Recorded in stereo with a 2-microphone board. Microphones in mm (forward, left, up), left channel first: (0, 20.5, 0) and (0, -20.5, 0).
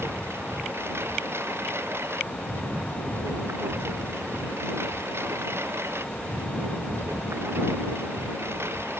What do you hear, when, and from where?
0.0 s a lawn mower: 80° right